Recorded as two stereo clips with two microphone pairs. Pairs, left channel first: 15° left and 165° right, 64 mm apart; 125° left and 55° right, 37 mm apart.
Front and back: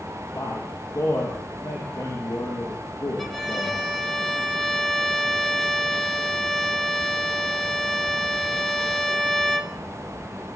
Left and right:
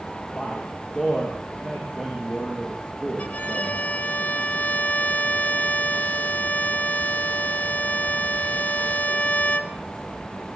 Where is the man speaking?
60° left, 8 m.